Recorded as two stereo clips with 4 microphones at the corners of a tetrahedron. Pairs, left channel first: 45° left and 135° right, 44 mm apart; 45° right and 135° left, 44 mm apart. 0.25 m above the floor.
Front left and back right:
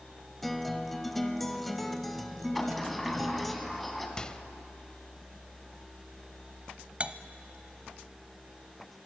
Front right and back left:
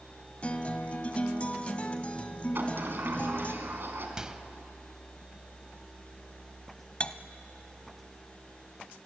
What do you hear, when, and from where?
0.4 s a guitar: 35° right, 1.2 m
2.5 s a sliding door: 135° left, 2.5 m
4.2 s a microwave: 85° left, 0.7 m
7.0 s cutlery clinking: 95° right, 0.7 m